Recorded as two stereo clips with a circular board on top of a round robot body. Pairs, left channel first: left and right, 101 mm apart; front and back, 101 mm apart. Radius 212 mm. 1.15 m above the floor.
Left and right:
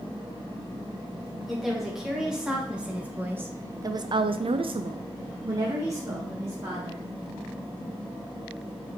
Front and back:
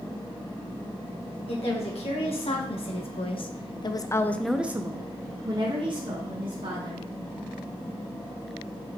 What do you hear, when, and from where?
1.5 s a woman speaking: straight ahead, 1.7 m; by 7.1 s 155° right, 1.7 m